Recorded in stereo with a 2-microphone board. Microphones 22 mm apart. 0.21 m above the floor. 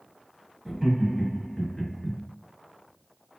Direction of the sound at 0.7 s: 20° right (ahead or behind).